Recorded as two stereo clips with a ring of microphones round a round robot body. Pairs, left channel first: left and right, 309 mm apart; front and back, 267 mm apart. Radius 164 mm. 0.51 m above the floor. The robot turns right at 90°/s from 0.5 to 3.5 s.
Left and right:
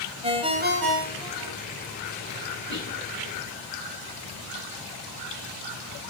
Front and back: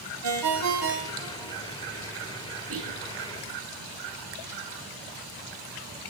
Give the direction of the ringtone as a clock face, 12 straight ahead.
5 o'clock.